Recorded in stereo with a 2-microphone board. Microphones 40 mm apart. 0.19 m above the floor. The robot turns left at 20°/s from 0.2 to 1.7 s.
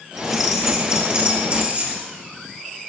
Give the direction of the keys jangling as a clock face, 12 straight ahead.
12 o'clock.